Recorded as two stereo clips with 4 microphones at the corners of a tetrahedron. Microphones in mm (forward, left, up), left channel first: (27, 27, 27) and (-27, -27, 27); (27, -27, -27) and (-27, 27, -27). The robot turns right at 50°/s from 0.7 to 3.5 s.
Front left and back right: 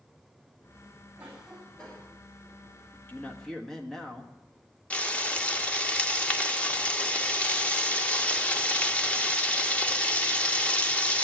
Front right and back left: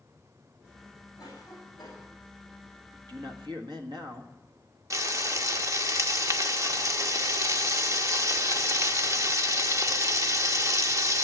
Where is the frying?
110° left, 0.9 m.